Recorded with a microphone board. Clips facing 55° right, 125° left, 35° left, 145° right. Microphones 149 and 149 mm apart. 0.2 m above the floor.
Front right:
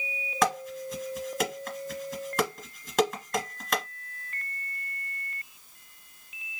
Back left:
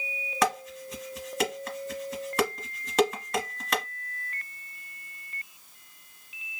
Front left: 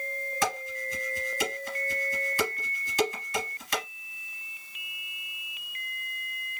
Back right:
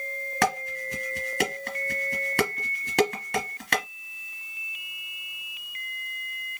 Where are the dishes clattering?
150° right, 1.9 m.